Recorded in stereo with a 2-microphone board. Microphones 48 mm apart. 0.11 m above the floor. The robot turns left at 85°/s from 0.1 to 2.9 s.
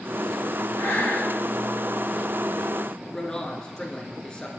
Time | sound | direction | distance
0.8 | breathing | 115° left | 3 m
3.0 | a man speaking | 20° left (ahead or behind) | 1.3 m